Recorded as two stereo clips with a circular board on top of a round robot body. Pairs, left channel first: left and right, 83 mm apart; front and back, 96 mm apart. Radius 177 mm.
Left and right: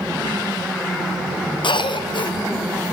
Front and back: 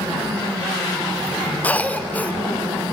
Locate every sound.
1.6 s a cough: 75° left, 2.5 m